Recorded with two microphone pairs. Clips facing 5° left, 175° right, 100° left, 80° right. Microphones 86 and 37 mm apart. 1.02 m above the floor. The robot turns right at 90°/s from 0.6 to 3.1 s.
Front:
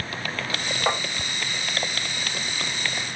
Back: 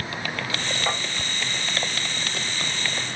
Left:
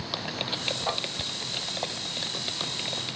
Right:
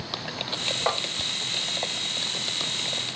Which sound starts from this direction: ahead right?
Tapping, at 0.9 s.